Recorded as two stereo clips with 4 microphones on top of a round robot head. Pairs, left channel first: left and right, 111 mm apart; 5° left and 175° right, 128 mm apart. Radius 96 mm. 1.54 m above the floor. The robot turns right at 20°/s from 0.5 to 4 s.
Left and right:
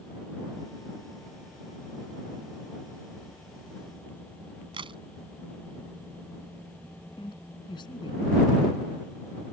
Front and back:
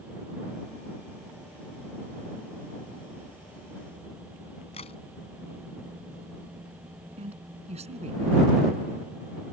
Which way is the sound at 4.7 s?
55° right.